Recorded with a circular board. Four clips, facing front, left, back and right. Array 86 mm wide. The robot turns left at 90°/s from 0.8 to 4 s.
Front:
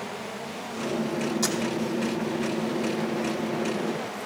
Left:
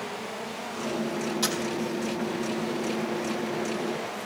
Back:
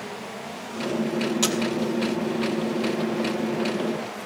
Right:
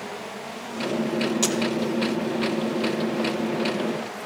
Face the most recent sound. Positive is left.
turn(degrees=-30)